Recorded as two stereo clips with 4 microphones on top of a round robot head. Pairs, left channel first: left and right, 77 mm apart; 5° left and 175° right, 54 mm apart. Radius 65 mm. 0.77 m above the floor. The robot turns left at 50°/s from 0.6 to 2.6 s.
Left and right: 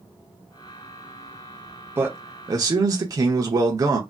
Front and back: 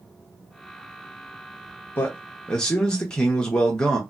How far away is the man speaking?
About 0.6 m.